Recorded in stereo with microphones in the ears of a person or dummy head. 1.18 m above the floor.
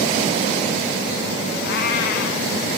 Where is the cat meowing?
70° left (ahead or behind), 2.5 m.